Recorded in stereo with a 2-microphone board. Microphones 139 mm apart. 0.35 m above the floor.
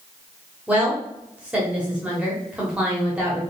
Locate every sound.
0.7 s a woman speaking: 10° right (ahead or behind), 1.1 m